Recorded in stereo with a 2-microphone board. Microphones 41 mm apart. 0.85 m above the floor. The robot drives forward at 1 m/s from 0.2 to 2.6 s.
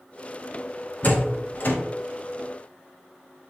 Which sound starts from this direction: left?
A door slam, at 1.0 s.